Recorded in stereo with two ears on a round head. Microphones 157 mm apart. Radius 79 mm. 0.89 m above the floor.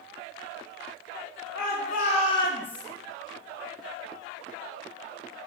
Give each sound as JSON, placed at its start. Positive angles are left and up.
{"t": 1.5, "sound": "a shout", "side_deg": 55, "distance_m": 1.4}